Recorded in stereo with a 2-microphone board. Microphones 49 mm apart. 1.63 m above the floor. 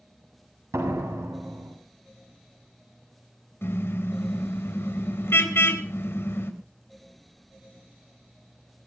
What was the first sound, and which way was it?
A door slam, 85° right.